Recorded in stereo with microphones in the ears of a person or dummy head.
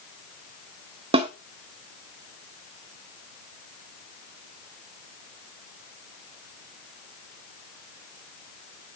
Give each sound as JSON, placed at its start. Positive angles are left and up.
{"t": 1.1, "sound": "a snare drum", "side_deg": -30, "distance_m": 1.1}